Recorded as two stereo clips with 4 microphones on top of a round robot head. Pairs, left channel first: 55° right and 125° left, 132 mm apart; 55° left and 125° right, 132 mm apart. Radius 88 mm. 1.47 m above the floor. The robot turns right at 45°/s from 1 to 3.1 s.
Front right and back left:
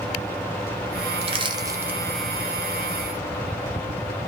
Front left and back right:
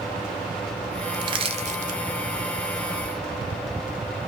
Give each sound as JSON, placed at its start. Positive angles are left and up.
{"t": 1.2, "sound": "crushing", "azimuth_deg": 175, "distance_m": 0.7}